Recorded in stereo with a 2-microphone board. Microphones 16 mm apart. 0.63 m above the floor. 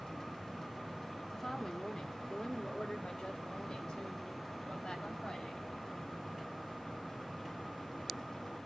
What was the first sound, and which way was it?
A woman speaking, 30° left (ahead or behind).